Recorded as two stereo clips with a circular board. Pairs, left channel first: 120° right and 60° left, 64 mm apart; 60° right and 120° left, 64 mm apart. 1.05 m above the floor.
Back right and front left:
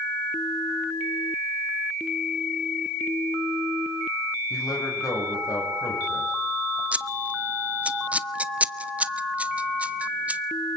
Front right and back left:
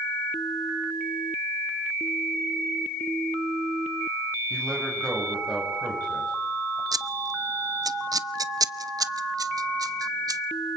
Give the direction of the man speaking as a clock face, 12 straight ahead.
5 o'clock.